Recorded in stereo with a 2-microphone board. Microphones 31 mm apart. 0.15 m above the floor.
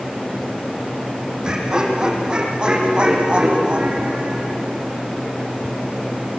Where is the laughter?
20° right (ahead or behind), 6.5 m; by 4.5 s 35° right (ahead or behind), 8 m.